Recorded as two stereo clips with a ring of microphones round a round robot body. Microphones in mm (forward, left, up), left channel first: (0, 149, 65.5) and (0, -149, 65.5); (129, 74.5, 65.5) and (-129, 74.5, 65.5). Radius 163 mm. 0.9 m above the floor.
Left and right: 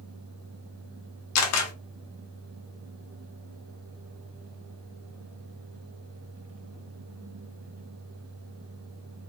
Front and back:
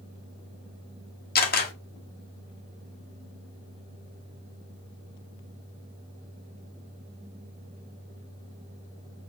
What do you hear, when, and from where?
1.4 s a camera shutter: 55° left, 1.0 m